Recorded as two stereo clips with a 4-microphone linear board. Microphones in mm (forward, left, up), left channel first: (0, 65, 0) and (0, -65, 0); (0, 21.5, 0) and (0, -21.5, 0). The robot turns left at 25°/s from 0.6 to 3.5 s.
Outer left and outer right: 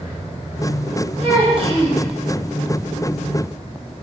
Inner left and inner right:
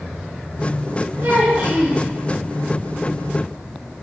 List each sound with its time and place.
1.2 s a child speaking: 50° right (ahead or behind), 1.3 m; by 2.0 s 35° right (ahead or behind), 1.3 m